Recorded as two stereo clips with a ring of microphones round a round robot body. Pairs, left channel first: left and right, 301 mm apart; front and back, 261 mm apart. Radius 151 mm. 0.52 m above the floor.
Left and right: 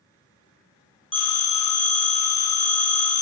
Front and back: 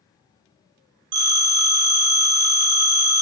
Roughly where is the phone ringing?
Behind.